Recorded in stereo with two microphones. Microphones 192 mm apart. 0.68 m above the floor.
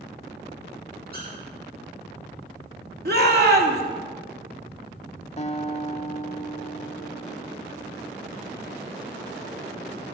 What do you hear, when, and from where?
1.1 s a squeak: 55° right (ahead or behind), 6.5 m
3.0 s a shout: 55° right (ahead or behind), 2 m
5.4 s a guitar: 35° left (ahead or behind), 0.6 m